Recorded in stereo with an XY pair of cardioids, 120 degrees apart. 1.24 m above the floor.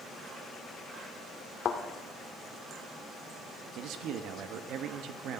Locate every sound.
1.6 s a thud: 50° left, 1.8 m
3.8 s a man speaking: 70° right, 1.4 m